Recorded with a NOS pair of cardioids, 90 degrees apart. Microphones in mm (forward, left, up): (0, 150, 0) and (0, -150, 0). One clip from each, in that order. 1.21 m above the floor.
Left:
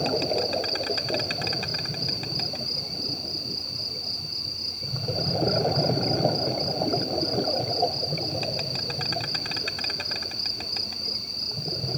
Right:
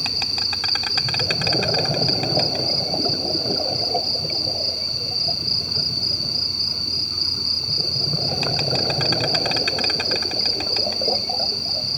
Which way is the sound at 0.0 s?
50° right.